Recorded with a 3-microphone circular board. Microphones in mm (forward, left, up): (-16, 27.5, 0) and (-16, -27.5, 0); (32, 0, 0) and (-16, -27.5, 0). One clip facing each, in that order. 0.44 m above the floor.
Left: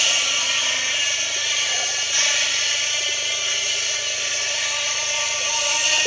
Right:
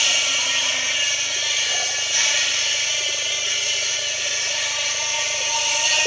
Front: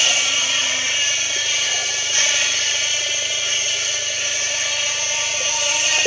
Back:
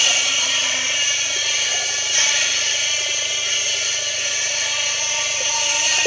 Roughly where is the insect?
Ahead left.